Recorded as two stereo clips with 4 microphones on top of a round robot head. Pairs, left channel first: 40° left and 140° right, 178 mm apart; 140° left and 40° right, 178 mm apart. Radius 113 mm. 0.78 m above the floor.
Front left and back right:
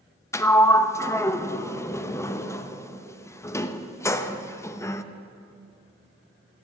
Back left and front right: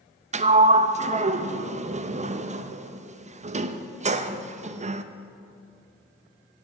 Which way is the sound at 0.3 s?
25° right.